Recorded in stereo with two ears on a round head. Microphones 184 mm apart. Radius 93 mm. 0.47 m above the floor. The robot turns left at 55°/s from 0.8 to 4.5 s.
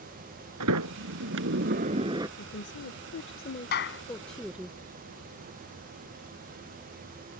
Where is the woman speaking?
110° left; by 4.7 s 5° right.